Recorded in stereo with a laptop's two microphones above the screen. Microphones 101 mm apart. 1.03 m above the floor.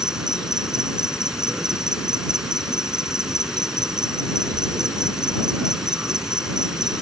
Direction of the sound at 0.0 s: 5° right (ahead or behind).